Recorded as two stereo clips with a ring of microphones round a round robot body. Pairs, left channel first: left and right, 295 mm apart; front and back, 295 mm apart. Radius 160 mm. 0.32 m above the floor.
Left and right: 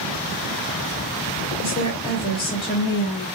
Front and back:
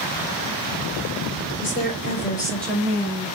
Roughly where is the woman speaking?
Ahead left.